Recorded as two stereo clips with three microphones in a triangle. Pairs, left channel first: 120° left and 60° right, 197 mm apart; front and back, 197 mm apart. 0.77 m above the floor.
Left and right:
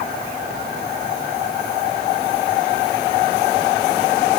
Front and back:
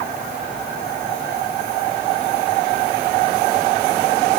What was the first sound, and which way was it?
Only background noise.